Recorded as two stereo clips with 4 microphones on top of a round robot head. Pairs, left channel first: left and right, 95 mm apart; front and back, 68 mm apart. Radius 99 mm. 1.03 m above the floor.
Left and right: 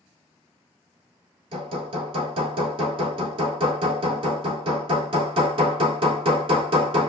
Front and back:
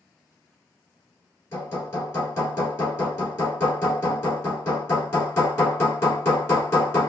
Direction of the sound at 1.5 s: 55° right.